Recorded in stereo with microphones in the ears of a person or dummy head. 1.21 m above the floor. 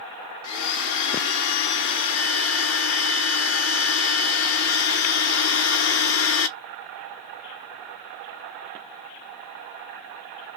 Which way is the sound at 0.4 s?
70° left (ahead or behind).